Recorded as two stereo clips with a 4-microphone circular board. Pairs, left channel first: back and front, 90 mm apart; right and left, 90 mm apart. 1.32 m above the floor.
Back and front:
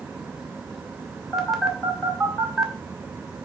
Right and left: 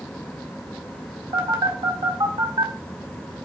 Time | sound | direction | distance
1.3 | a phone buzzing | 85° left | 1.8 m